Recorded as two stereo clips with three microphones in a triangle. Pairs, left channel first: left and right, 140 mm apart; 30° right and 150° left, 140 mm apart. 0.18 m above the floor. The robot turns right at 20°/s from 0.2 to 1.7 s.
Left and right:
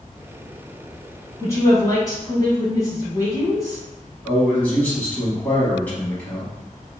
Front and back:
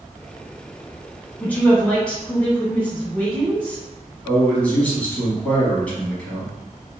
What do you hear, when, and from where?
1.4 s a woman speaking: 35° left, 1.2 m; by 3.8 s 45° left, 1.2 m
4.2 s a man speaking: 30° left, 1.1 m